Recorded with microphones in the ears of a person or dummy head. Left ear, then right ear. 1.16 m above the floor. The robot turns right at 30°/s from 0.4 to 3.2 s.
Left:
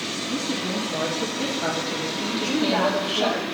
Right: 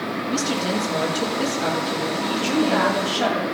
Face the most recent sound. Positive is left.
turn(degrees=-75)  # may be behind; listen again after turning